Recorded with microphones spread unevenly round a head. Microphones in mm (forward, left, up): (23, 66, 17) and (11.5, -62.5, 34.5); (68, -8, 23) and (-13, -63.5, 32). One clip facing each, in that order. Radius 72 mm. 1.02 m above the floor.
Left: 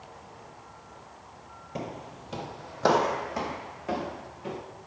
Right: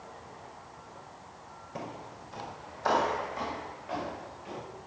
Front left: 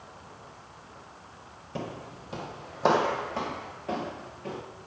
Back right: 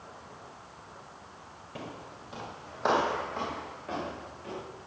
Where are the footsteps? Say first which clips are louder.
Left 4 dB, front left 5 dB; 35° left, 1.0 m; by 4.6 s 105° left, 4.5 m.